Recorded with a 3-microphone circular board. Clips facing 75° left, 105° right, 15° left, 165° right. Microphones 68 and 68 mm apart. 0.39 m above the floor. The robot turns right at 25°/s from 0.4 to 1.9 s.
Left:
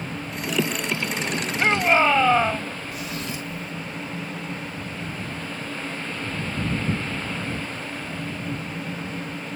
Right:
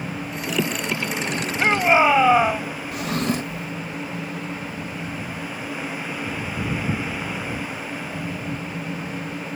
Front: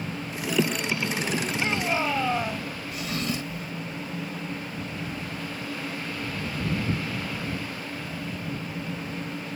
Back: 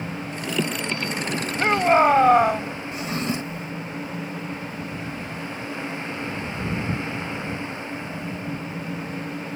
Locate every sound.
1.6 s a shout: 170° left; by 2.7 s straight behind
2.9 s a drawer: 110° right